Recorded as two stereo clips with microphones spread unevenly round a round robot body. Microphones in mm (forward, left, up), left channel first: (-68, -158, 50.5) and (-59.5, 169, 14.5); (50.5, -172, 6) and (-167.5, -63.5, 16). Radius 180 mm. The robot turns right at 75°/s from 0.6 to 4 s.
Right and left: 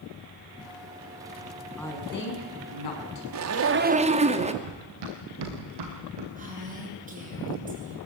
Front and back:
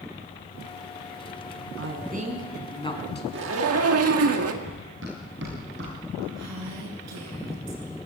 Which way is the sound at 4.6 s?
95° left.